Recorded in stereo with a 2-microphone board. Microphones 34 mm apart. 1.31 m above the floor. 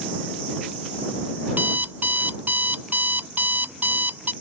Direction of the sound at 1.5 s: 55° right (ahead or behind).